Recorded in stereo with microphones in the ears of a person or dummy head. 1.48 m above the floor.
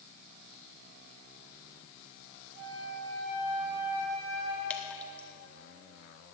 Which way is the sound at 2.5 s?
40° right (ahead or behind).